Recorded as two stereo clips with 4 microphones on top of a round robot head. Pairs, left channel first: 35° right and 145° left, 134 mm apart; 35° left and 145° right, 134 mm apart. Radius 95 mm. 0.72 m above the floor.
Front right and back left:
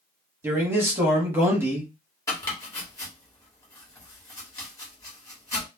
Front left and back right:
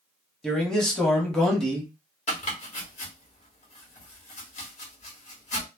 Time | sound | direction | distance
0.4 | a man speaking | 115° left | 1.1 m
2.3 | chopping | 25° left | 1.2 m